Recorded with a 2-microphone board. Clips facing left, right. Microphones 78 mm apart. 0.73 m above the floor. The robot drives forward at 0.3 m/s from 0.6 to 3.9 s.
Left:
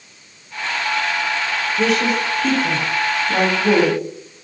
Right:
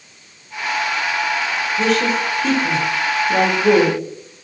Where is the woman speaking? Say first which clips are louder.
Even; centre (ahead or behind), 0.6 m.